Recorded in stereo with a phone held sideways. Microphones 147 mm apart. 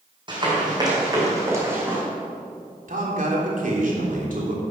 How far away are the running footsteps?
About 4 m.